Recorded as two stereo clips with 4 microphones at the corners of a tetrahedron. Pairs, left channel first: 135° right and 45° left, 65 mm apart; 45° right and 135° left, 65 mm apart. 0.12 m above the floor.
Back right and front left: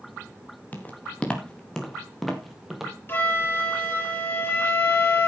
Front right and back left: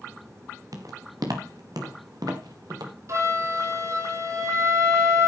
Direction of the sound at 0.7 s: 160° left.